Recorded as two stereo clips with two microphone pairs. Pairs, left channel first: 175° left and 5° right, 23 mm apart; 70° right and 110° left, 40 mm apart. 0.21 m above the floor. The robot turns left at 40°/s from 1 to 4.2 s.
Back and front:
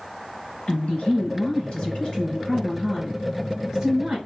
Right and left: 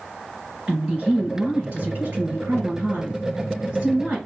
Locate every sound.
0.7 s a woman speaking: 165° left, 3 m; by 4.2 s 35° left, 3 m